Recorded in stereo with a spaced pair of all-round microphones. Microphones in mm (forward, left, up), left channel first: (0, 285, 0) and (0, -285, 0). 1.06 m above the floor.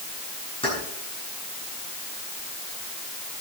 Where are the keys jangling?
10° left (ahead or behind), 8 m.